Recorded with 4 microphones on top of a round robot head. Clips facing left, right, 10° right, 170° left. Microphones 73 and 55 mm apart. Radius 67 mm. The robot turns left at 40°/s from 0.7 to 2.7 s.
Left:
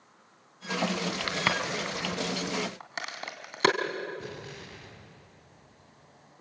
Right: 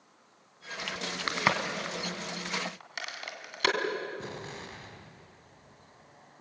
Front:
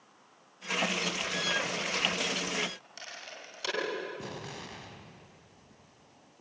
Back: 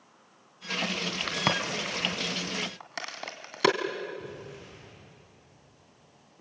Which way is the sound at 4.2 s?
30° right.